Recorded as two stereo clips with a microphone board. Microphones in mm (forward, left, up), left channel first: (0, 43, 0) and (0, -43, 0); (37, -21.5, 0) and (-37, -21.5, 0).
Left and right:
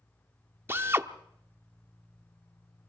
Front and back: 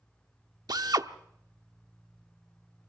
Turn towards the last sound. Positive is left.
turn(degrees=-150)